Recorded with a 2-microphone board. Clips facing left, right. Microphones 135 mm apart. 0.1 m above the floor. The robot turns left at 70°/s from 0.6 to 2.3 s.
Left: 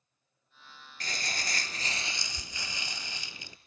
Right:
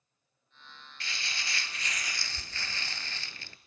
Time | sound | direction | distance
1.0 | crumpling | 110° left | 0.8 m